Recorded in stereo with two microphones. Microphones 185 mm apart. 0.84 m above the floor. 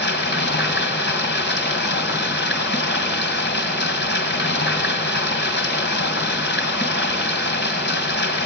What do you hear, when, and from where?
0.0 s running water: 85° left, 2.5 m